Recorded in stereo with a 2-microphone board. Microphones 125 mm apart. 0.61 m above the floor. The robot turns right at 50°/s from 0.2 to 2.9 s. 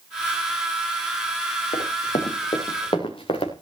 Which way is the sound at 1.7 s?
80° left.